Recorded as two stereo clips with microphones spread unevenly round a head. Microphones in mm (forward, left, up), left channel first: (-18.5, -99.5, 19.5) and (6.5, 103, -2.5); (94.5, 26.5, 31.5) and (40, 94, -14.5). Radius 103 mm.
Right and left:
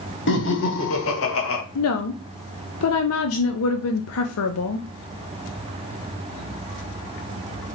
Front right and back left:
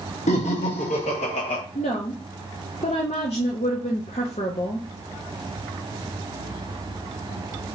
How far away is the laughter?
About 1.3 m.